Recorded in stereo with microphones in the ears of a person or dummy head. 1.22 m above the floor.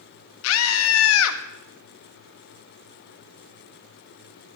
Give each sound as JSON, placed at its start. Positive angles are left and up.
{"t": 0.4, "sound": "a scream", "side_deg": 80, "distance_m": 1.3}